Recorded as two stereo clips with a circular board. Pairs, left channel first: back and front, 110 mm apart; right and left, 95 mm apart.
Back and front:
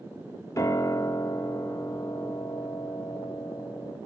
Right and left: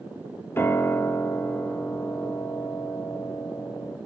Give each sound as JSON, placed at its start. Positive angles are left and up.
{"t": 0.6, "sound": "a piano", "azimuth_deg": -140, "distance_m": 0.8}